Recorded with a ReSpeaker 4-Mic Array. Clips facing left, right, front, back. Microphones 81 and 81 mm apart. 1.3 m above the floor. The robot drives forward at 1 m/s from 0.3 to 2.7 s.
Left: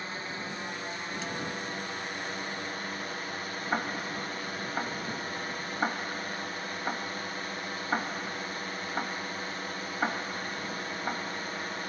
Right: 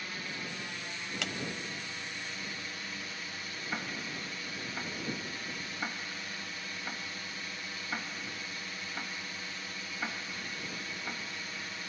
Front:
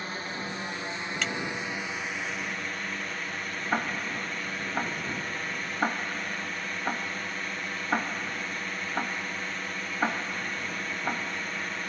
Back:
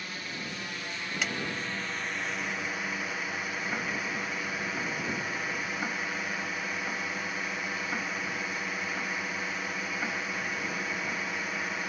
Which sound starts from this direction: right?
A clap, at 1.2 s.